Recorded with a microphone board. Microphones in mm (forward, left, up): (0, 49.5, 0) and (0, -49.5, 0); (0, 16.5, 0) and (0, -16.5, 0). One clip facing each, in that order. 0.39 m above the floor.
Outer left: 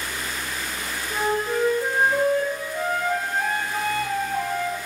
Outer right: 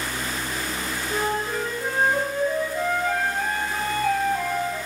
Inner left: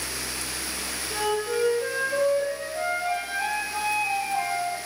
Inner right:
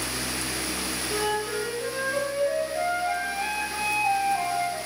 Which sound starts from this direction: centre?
A flute, at 1.1 s.